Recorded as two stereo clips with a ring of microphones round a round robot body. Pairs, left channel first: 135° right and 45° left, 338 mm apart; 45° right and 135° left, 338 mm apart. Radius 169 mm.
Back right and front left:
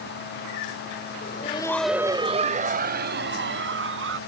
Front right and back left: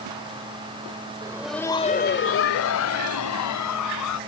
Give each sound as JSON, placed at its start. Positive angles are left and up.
{"t": 1.2, "sound": "laughter", "azimuth_deg": -160}